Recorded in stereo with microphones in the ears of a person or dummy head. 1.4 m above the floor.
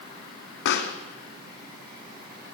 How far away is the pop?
About 1.9 m.